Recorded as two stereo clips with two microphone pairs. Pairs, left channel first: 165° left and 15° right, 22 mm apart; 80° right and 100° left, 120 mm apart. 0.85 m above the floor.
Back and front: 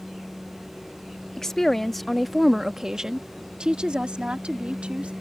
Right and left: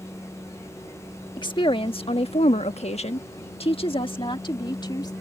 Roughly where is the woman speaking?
Behind right.